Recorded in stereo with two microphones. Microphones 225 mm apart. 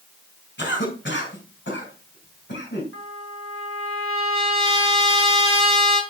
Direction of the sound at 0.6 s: 55° left (ahead or behind).